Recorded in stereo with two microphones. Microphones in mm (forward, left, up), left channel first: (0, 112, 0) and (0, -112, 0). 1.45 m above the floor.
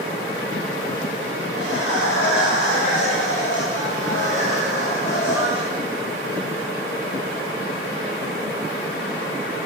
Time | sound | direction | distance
1.5 | laughter | 85° left | 8.5 m